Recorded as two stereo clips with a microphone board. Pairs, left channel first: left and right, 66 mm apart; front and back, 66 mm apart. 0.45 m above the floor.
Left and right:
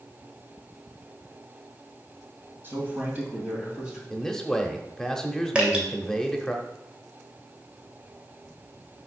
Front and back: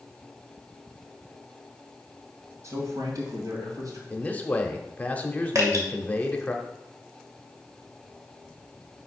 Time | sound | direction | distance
2.6 | a man speaking | 145° right | 2 m
4.1 | a man speaking | 20° left | 0.8 m
5.5 | dripping | 160° right | 1.8 m